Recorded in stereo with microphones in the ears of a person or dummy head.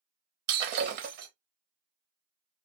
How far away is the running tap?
I don't hear a running tap.